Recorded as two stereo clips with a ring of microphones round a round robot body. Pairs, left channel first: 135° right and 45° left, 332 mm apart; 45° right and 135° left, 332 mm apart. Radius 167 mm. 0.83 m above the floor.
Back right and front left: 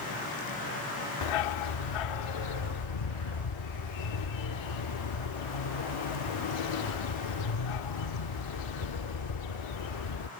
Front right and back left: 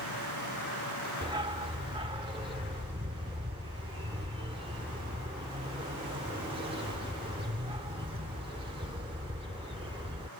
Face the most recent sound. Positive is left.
turn(degrees=-150)